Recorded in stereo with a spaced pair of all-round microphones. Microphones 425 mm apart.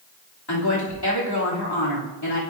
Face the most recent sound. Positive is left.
turn(degrees=65)  # may be behind; listen again after turning